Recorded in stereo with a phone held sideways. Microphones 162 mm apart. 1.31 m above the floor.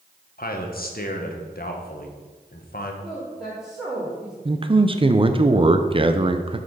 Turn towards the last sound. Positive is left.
turn(degrees=-35)  # may be behind; listen again after turning